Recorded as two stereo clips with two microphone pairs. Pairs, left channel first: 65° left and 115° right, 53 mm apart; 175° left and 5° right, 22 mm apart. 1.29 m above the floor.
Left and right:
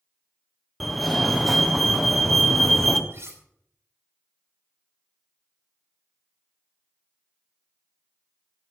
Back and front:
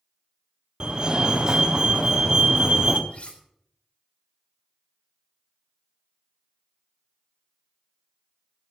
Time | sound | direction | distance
0.8 | a fire alarm | 25° right | 1.3 m
3.1 | cutlery clinking | 155° right | 3.5 m